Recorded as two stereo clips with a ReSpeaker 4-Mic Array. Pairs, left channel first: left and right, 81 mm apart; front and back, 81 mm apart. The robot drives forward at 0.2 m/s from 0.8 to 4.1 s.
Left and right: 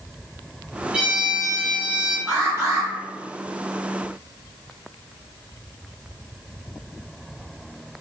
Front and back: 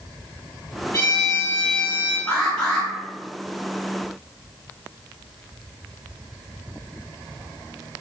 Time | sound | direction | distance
0.9 | a violin | 20° right | 1.2 m
2.3 | an alarm | 70° right | 1.0 m